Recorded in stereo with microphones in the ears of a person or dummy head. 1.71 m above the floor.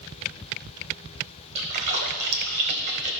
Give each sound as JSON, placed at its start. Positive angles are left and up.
{"t": 1.6, "sound": "a splash", "side_deg": -55, "distance_m": 1.1}